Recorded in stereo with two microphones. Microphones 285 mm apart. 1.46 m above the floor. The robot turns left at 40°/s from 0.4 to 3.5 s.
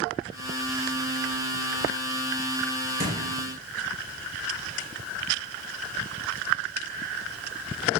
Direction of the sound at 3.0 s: 30° right (ahead or behind).